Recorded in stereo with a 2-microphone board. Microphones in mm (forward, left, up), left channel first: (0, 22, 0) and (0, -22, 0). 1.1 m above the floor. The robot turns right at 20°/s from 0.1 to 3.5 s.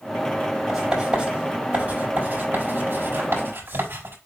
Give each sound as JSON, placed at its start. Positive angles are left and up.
{"t": 0.7, "sound": "writing", "side_deg": -10, "distance_m": 4.5}